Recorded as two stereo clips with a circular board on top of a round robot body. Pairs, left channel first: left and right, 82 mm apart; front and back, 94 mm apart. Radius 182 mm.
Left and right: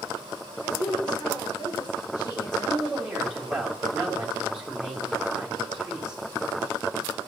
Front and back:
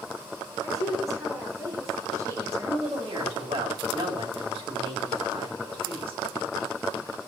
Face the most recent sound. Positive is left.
turn(degrees=-170)